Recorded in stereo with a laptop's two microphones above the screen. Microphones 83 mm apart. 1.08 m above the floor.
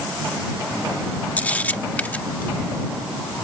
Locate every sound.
1.4 s a camera shutter: 20° left (ahead or behind)